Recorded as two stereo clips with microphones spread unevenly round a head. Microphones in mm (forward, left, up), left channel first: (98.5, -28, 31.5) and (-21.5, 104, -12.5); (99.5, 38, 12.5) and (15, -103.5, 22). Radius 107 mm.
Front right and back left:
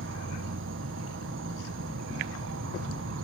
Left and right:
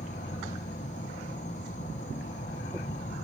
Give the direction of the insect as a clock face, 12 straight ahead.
8 o'clock.